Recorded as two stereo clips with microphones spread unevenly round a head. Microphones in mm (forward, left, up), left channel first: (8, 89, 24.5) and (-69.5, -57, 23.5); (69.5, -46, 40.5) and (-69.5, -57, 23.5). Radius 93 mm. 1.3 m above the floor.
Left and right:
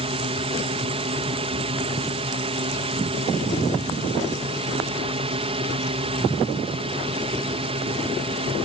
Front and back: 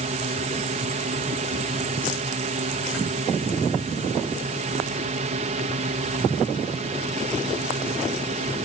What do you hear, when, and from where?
0.0 s a drone: 165° right